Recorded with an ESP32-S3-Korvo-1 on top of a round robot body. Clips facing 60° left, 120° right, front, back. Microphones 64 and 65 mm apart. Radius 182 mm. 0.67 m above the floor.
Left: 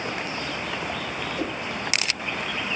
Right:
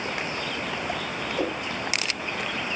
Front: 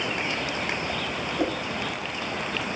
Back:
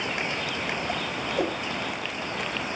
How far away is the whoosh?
About 2.5 m.